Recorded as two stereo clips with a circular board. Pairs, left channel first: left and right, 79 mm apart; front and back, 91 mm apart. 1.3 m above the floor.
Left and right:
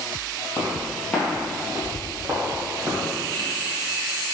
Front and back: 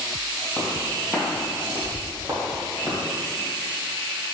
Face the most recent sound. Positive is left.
turn(degrees=-130)